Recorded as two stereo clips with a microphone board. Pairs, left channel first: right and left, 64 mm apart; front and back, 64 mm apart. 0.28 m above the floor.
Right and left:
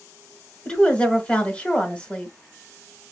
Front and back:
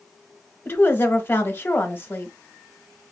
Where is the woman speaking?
30° right, 1.1 m.